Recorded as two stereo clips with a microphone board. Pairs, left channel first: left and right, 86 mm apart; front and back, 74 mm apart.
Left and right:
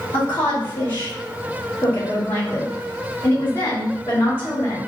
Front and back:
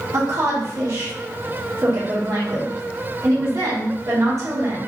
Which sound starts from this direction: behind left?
A woman speaking, at 0.1 s.